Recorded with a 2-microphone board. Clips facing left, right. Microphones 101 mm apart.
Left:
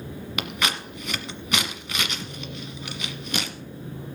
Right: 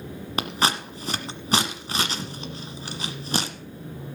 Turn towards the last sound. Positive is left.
turn(degrees=-35)  # may be behind; listen again after turning